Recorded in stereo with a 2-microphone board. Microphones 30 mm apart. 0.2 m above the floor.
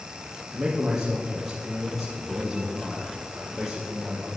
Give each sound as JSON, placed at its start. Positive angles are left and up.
{"t": 0.5, "sound": "a man speaking", "side_deg": -10, "distance_m": 4.5}